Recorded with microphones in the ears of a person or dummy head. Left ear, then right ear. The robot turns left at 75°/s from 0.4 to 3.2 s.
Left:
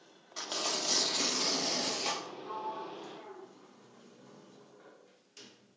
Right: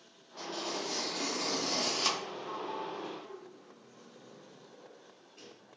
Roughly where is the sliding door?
Centre.